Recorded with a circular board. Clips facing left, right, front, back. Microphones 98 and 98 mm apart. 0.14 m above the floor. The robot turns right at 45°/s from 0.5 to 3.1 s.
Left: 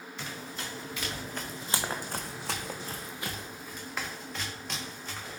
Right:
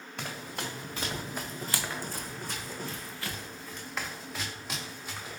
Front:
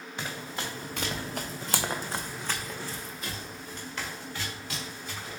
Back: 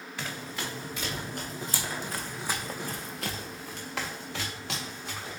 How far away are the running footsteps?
About 1.4 m.